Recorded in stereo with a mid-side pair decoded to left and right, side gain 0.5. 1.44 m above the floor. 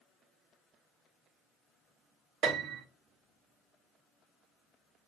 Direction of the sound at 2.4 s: 70° right.